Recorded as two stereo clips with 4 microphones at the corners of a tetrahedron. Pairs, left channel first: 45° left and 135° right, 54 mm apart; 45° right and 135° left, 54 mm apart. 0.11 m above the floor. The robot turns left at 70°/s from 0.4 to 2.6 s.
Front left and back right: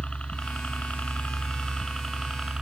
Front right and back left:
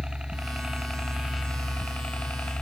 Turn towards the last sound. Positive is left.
turn(degrees=-75)